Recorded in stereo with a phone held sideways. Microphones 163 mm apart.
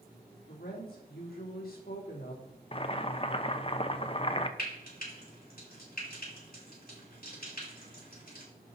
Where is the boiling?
35° left (ahead or behind), 0.7 m.